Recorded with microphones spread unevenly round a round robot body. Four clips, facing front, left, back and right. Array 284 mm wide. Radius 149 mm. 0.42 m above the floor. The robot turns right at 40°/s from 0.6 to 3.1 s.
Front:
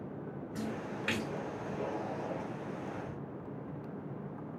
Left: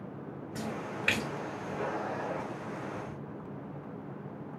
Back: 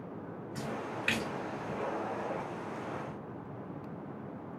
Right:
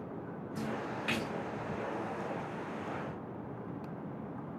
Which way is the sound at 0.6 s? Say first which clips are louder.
Even, back 1 dB; 65° left.